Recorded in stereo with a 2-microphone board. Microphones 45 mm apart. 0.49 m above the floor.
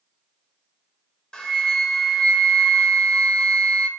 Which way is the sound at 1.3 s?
15° left (ahead or behind).